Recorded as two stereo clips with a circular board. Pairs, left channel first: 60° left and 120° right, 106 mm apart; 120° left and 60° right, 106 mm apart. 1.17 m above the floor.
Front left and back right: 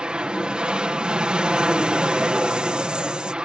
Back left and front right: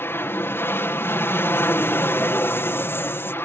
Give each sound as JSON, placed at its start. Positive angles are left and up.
{"t": 0.0, "sound": "an aircraft", "azimuth_deg": 165}